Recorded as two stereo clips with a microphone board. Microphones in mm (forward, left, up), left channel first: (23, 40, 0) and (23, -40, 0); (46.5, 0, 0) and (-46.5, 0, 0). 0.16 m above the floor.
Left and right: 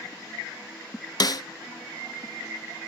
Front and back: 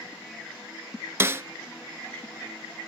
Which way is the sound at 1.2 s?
120° left.